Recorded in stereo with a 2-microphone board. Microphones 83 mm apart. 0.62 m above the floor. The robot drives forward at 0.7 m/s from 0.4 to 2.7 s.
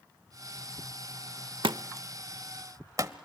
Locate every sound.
1.6 s a thud: 85° right, 0.7 m; by 3.1 s 40° right (ahead or behind), 1.0 m